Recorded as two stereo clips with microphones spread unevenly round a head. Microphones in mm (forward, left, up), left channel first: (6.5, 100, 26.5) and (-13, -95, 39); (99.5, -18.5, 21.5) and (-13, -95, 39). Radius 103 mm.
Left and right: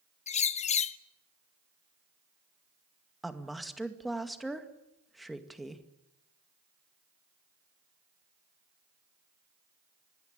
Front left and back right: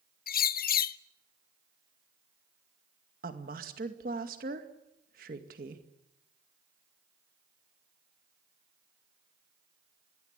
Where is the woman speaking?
175° left, 2 m.